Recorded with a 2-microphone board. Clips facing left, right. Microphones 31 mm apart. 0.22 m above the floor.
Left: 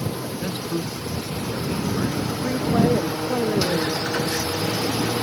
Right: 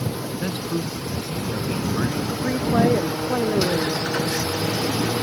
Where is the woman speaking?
55° right (ahead or behind).